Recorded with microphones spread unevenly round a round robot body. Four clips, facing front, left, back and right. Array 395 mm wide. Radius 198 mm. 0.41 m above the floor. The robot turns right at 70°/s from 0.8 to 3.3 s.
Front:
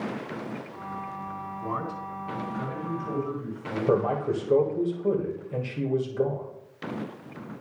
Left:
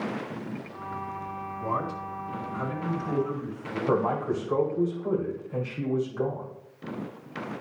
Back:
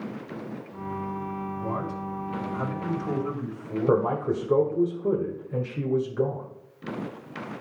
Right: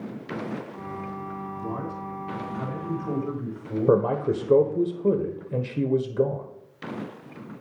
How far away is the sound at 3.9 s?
About 1.6 m.